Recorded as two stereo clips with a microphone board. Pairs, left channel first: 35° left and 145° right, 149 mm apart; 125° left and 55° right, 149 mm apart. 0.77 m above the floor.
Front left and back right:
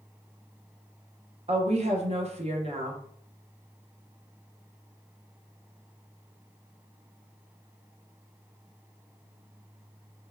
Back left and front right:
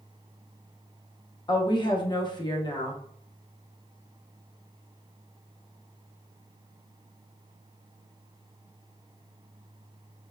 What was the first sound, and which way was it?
A woman speaking, straight behind.